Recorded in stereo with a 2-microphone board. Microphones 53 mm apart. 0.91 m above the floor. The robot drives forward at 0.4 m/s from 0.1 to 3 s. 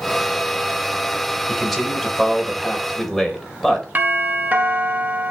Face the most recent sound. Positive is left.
turn(degrees=-35)  # may be behind; listen again after turning